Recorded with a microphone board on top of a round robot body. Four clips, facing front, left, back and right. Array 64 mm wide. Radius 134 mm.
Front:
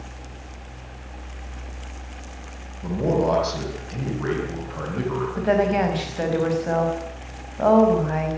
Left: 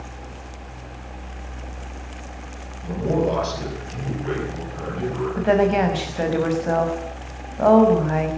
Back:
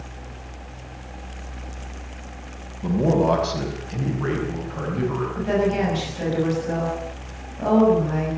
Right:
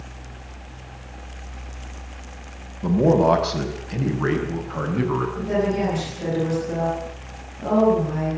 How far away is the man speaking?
About 5.5 m.